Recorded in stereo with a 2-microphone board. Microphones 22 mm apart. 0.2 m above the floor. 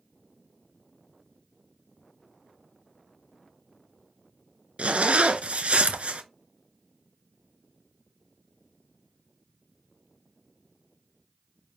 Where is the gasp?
I don't hear a gasp.